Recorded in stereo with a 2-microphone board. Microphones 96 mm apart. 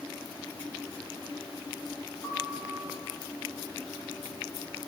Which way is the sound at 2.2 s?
35° left (ahead or behind).